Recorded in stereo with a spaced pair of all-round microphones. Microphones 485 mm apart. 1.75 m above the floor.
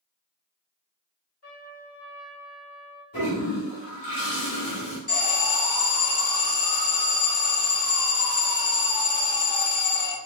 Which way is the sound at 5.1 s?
50° left (ahead or behind).